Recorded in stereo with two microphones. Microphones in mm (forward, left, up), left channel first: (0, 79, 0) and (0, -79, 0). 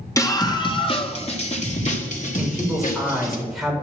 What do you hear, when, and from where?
0.2 s a scream: 20° left (ahead or behind), 1.7 m; by 3.4 s 60° left (ahead or behind), 3.5 m
2.4 s a man speaking: centre (ahead or behind), 5.5 m